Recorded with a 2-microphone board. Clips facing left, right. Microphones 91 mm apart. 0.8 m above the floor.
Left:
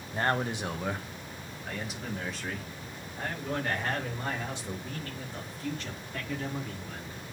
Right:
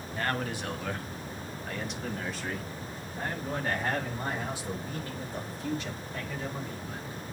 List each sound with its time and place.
0.1 s a man speaking: 30° left (ahead or behind), 1.1 m; by 7.2 s 15° right (ahead or behind), 5.5 m